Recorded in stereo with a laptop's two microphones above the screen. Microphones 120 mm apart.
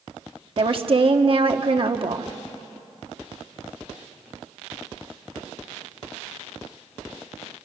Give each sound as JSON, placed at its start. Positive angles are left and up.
{"t": 0.6, "sound": "a woman speaking", "side_deg": -45, "distance_m": 1.5}